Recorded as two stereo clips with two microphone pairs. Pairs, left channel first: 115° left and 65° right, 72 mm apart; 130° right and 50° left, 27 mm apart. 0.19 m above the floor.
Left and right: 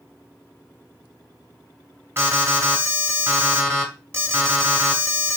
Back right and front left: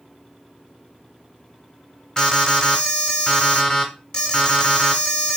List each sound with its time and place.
2.2 s an alarm: 75° right, 1.3 m